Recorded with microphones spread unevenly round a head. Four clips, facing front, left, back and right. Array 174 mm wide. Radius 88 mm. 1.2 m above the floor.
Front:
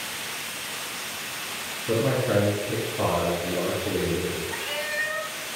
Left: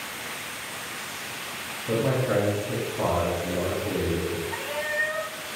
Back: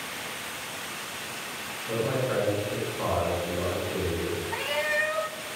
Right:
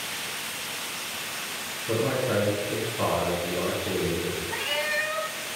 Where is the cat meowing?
175° left, 0.8 m.